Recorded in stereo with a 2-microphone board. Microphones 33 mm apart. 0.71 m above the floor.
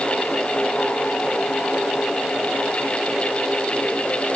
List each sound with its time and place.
Only background noise.